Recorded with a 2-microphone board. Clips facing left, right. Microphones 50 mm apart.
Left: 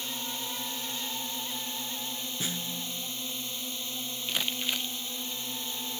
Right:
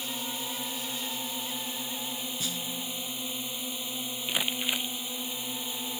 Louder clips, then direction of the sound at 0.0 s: Right 1 dB; 15° right (ahead or behind).